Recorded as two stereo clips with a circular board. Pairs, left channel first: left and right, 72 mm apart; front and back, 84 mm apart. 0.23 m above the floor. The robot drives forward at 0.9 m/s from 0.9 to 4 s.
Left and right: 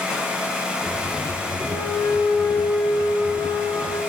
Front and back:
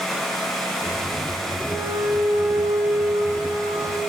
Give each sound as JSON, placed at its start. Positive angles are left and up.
{"t": 1.7, "sound": "a flute", "azimuth_deg": 110, "distance_m": 5.5}